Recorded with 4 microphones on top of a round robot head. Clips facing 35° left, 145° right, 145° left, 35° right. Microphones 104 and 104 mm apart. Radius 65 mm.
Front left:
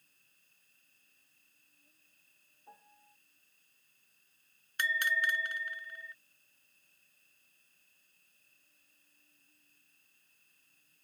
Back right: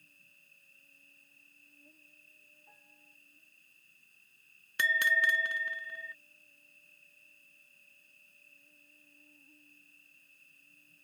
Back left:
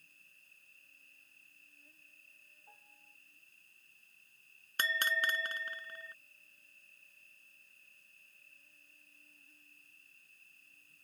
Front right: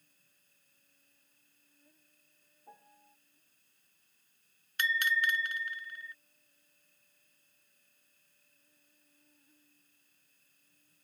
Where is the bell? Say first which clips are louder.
Back right 3 dB, front right 3 dB; 155° right.